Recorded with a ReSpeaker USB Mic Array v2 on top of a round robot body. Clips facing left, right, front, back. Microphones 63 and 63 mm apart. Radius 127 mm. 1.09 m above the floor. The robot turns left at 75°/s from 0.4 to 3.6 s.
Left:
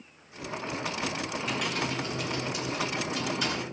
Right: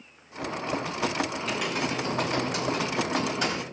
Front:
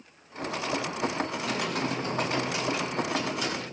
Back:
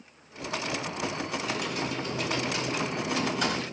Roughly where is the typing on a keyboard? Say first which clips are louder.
Right 2 dB, front 2 dB; ahead.